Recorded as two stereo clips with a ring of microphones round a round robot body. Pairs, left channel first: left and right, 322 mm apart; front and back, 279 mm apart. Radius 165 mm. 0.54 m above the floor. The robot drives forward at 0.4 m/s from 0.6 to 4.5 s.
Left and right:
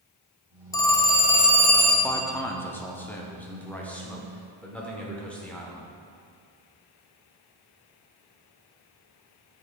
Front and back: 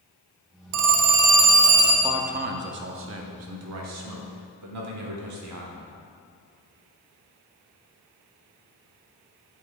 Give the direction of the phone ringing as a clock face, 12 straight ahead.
6 o'clock.